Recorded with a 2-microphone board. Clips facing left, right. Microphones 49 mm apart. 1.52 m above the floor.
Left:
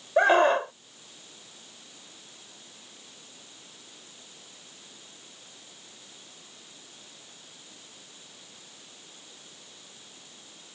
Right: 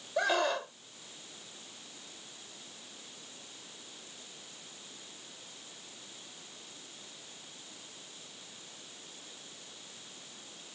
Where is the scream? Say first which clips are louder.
Left 10 dB; 35° left (ahead or behind).